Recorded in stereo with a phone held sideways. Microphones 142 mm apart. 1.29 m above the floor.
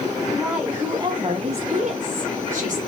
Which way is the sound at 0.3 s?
5° left (ahead or behind).